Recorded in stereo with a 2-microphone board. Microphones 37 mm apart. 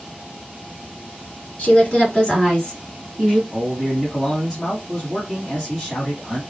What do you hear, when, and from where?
1.6 s a woman speaking: 25° left (ahead or behind), 1.6 m; by 3.4 s centre (ahead or behind), 1.8 m
3.5 s a man speaking: 5° left (ahead or behind), 1.2 m